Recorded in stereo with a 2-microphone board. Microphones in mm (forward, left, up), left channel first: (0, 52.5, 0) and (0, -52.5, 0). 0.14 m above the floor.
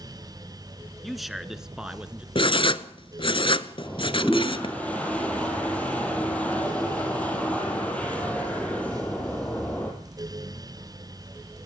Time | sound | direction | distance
1.0 | a man speaking | centre (ahead or behind) | 1.8 m
2.4 | writing | 55° left (ahead or behind) | 0.9 m
3.8 | a toilet flushing | 15° left (ahead or behind) | 5 m